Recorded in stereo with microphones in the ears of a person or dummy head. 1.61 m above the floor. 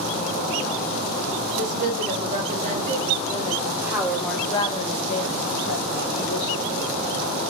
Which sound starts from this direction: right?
A woman speaking, at 1.6 s.